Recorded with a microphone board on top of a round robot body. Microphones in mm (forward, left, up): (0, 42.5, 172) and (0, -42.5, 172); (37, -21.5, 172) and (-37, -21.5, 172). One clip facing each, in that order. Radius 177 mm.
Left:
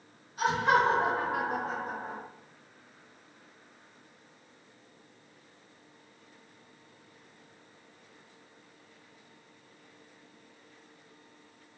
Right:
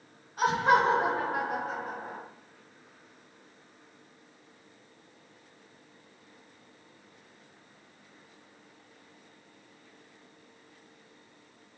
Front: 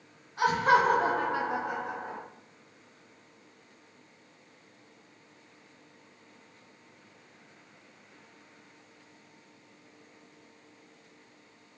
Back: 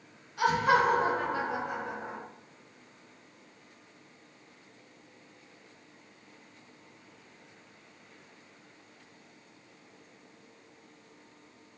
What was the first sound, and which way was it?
Laughter, 55° right.